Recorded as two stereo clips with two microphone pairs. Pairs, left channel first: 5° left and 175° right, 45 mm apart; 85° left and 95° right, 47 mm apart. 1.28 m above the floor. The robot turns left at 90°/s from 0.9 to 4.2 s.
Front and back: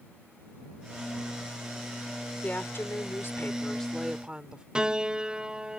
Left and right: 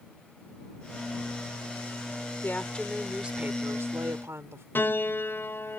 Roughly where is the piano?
Behind left.